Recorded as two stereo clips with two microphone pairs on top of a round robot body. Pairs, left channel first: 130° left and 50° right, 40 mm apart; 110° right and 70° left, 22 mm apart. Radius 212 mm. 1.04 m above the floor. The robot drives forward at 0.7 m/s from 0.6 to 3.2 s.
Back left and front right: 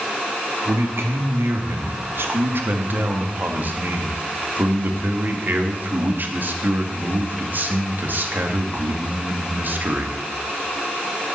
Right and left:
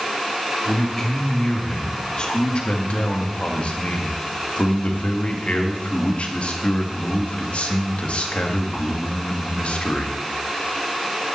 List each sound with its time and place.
0.7 s a man speaking: 40° right, 2.5 m; by 10.2 s 85° right, 1.8 m